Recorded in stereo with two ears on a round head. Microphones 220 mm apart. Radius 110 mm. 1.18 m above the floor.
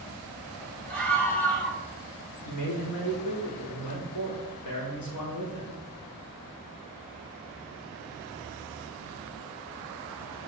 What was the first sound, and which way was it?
A scream, 5° left (ahead or behind).